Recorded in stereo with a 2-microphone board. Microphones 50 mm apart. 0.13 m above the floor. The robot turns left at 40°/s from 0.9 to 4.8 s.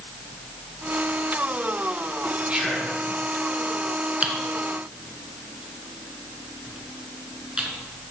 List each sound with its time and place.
2.5 s whispering: 25° right (ahead or behind), 2 m; by 3.0 s 10° right (ahead or behind), 2 m
4.2 s typing on a keyboard: 30° right (ahead or behind), 1.0 m; by 7.7 s 20° right (ahead or behind), 1.0 m